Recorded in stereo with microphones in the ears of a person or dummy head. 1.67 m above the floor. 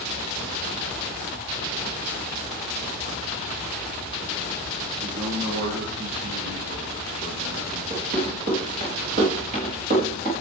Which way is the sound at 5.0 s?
70° right (ahead or behind).